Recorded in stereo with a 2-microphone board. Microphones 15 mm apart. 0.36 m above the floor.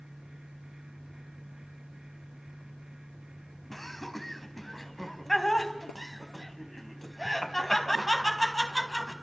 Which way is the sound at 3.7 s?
15° left (ahead or behind).